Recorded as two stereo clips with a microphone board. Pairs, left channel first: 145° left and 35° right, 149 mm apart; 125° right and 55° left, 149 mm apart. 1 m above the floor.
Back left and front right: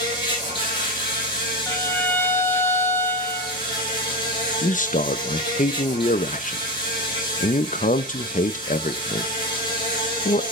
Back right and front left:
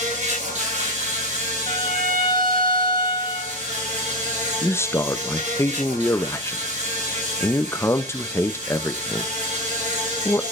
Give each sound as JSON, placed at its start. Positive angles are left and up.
{"t": 0.0, "sound": "an insect", "azimuth_deg": 90, "distance_m": 3.0}
{"t": 1.7, "sound": "a violin", "azimuth_deg": 70, "distance_m": 1.2}
{"t": 4.6, "sound": "a man speaking", "azimuth_deg": 165, "distance_m": 0.6}